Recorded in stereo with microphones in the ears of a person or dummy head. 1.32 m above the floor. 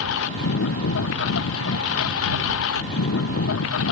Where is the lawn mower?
80° left; by 3.9 s 85° left.